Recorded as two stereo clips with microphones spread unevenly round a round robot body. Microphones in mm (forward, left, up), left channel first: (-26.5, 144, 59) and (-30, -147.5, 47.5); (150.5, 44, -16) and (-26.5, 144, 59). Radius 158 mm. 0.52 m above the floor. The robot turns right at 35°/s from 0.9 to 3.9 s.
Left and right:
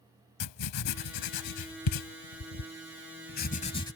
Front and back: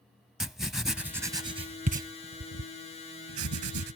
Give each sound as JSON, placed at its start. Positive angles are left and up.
{"t": 0.4, "sound": "writing", "azimuth_deg": 60}